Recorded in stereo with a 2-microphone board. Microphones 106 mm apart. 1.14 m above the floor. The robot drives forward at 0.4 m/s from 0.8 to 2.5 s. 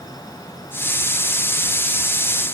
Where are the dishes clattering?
I don't hear dishes clattering.